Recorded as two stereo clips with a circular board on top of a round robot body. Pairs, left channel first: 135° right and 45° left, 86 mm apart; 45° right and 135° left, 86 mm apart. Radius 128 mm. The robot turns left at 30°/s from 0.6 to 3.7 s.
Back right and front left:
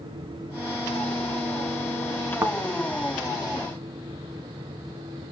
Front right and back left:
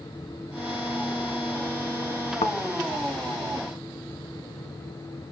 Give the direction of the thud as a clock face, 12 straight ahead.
1 o'clock.